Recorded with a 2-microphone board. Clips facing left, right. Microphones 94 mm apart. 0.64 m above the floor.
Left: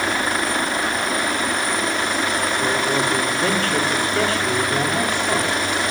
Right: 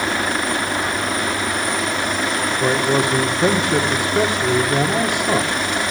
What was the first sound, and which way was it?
A man speaking, 20° right (ahead or behind).